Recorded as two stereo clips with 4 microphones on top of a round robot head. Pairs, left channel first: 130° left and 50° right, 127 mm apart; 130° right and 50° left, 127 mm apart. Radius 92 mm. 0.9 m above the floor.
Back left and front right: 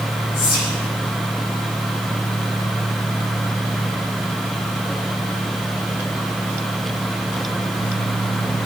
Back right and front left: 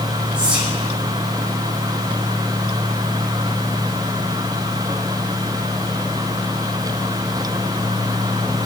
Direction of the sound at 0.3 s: 130° left.